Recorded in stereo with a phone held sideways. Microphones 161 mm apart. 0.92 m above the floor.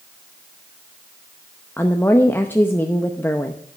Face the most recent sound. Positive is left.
turn(degrees=15)  # may be behind; listen again after turning